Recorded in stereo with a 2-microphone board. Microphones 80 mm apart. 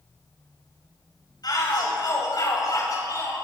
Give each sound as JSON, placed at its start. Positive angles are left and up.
{"t": 1.4, "sound": "a shout", "side_deg": 55, "distance_m": 10.0}